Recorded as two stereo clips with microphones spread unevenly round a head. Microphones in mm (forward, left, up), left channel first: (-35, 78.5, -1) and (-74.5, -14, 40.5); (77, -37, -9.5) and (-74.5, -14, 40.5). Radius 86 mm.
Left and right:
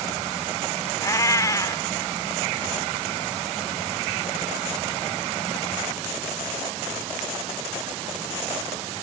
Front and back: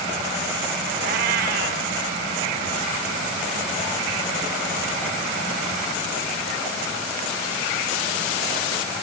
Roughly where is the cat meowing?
Behind left.